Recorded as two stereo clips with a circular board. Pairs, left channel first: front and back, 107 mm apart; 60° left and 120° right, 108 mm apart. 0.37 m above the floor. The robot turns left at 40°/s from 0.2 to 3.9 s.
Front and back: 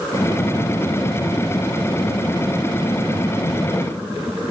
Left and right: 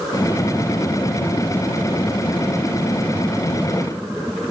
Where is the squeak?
I don't hear a squeak.